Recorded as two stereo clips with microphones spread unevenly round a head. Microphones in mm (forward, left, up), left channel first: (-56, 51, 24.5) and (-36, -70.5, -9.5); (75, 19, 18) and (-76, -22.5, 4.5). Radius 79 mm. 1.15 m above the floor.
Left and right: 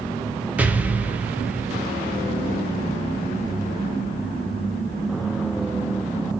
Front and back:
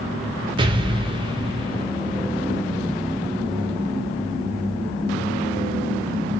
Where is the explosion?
135° right, 0.6 m.